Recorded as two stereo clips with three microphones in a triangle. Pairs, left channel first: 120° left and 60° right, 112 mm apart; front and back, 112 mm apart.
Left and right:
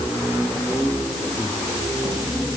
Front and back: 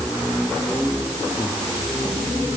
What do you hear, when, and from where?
Only background noise.